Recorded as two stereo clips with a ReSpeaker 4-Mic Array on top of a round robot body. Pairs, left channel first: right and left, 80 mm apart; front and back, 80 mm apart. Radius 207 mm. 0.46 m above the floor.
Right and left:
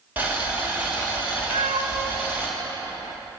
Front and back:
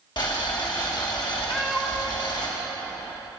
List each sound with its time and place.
0.2 s boiling: 20° left, 2.5 m
1.5 s a cat meowing: 85° left, 0.6 m